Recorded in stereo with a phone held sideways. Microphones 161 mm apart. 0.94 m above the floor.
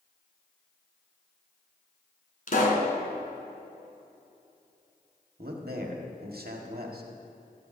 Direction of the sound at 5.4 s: 75° right (ahead or behind).